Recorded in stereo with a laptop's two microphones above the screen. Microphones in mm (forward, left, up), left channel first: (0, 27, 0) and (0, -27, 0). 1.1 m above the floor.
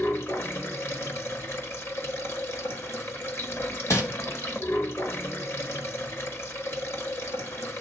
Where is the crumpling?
60° left (ahead or behind), 1.1 m.